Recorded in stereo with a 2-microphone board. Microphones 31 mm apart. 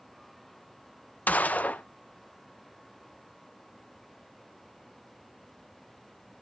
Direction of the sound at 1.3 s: 55° left (ahead or behind).